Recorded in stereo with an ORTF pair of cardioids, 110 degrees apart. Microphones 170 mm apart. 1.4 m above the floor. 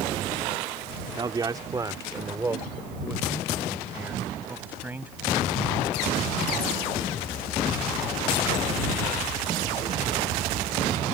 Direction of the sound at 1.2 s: 25° right.